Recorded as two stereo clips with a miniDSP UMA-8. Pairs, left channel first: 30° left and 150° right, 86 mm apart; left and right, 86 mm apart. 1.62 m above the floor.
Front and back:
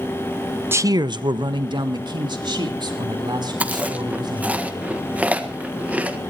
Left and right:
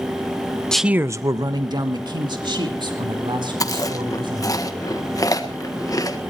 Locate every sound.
0.7 s a man speaking: 165° left, 0.6 m; by 4.6 s 115° right, 6 m
3.6 s chewing: 135° left, 1.6 m